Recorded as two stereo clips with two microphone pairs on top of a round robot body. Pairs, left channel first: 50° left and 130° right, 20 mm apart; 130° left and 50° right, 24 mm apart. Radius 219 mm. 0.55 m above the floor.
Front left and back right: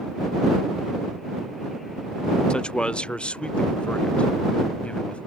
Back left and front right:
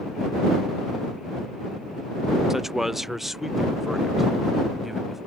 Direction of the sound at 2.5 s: 25° left.